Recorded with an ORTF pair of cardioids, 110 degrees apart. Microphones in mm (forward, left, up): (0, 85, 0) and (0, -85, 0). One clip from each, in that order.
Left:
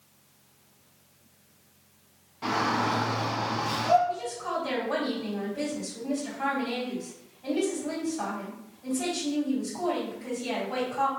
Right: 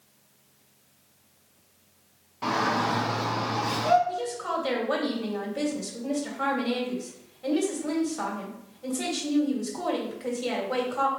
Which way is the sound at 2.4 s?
25° right.